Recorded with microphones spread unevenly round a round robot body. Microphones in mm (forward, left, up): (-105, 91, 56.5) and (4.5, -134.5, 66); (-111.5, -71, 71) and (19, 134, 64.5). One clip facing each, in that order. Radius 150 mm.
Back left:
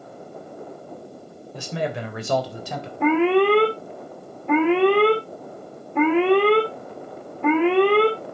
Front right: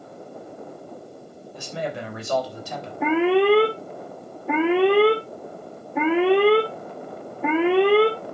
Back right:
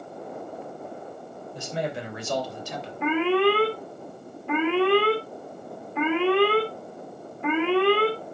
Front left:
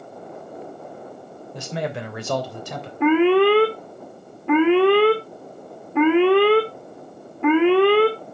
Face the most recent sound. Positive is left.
turn(degrees=25)